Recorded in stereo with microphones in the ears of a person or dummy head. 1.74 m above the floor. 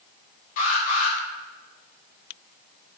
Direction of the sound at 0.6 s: 45° left (ahead or behind).